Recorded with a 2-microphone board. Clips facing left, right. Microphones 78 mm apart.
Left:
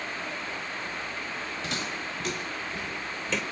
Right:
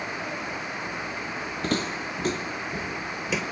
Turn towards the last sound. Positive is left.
turn(degrees=-5)  # may be behind; listen again after turning